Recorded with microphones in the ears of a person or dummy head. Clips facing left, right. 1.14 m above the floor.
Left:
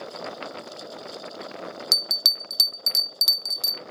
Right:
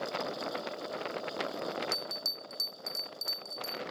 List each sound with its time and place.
1.9 s a bell: 80° left, 0.5 m